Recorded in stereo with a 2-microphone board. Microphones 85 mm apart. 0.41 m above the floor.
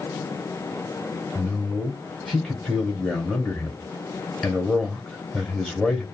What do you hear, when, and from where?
1.4 s a man speaking: 5° right (ahead or behind), 1.2 m